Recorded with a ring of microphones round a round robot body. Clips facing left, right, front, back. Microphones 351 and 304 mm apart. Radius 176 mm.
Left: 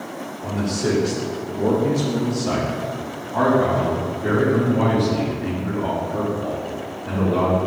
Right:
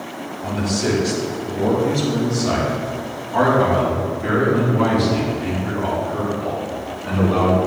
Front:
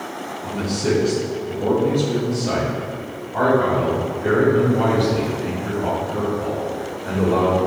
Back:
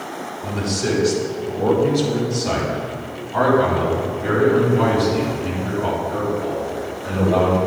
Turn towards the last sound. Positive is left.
turn(degrees=-130)